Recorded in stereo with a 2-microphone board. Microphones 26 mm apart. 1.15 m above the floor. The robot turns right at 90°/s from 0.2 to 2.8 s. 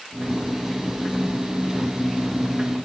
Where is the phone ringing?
I don't hear a phone ringing.